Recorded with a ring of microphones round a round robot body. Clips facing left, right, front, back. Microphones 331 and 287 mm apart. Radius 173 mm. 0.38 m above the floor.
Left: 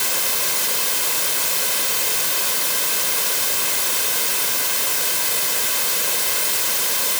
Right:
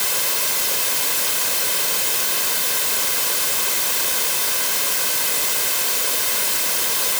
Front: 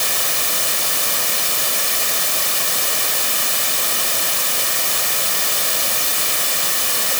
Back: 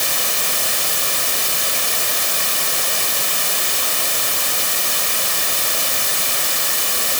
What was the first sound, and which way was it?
Only background noise.